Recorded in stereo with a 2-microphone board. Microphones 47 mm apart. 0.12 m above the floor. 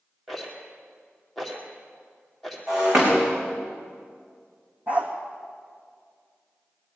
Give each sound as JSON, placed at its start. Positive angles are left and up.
{"t": 0.3, "sound": "a rattle", "side_deg": 5, "distance_m": 3.0}
{"t": 2.7, "sound": "breaking glass", "side_deg": -15, "distance_m": 5.5}
{"t": 4.9, "sound": "a dog barking", "side_deg": -35, "distance_m": 2.5}